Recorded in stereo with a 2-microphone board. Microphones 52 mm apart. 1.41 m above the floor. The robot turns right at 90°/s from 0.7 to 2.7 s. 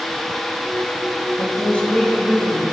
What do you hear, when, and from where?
1.4 s a woman speaking: 115° left, 3 m; by 2.7 s 125° right, 3 m